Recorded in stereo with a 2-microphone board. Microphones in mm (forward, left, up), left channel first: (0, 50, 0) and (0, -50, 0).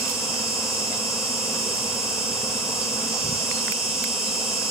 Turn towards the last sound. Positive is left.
turn(degrees=0)  # may be behind; listen again after turning